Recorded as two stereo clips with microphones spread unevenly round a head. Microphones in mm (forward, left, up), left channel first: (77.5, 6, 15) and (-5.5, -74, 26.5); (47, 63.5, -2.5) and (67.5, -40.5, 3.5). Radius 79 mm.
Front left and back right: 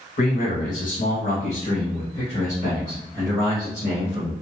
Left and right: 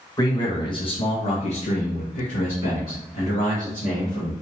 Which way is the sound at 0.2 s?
45° left.